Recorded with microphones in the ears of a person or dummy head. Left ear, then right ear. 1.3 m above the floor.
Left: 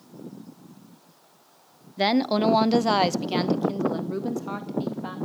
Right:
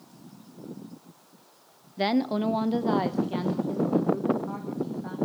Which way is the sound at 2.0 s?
10° left (ahead or behind).